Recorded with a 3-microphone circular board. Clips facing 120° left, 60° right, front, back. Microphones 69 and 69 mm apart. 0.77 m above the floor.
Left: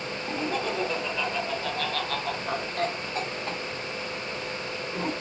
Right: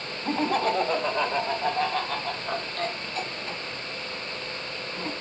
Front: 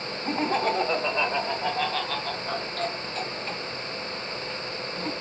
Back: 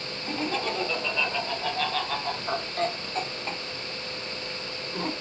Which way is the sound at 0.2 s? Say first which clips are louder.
Right 6 dB, front 5 dB; 40° right.